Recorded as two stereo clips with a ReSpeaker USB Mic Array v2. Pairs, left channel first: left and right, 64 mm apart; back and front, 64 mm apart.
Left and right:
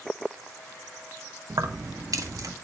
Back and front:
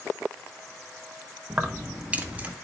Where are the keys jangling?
80° right, 1.1 m; by 2.5 s 70° right, 1.6 m.